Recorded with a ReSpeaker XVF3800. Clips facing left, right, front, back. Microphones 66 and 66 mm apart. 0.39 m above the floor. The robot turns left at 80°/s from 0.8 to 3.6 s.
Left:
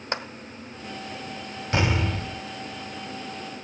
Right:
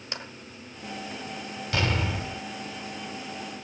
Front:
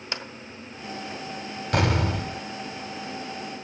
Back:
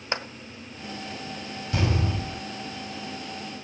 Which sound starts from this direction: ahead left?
An explosion, at 1.7 s.